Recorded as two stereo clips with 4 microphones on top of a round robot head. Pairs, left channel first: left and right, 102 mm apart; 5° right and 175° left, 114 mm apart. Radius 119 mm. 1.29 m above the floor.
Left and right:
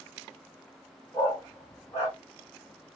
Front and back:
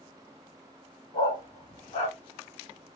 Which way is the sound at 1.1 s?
25° left.